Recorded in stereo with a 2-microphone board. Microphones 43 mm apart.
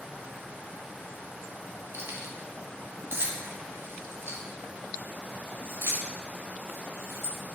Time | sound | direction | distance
1.9 | keys jangling | 65° right (ahead or behind) | 1.8 m